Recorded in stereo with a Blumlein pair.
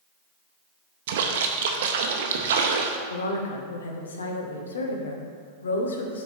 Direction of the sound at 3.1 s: 70° left.